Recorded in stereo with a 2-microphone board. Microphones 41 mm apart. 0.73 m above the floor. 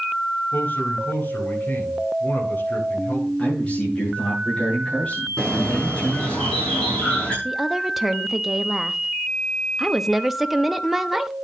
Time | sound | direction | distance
0.5 | a man speaking | 45° left (ahead or behind) | 8 m
3.4 | a man speaking | 25° left (ahead or behind) | 9 m
5.4 | a bird | 25° left (ahead or behind) | 7.5 m
7.5 | a woman speaking | 5° right (ahead or behind) | 0.8 m